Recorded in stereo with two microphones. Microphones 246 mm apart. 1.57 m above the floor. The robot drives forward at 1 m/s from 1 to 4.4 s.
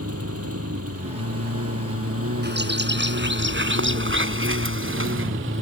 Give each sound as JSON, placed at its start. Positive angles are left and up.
{"t": 0.0, "sound": "a lawn mower", "side_deg": -70}
{"t": 2.4, "sound": "a bird", "side_deg": -45}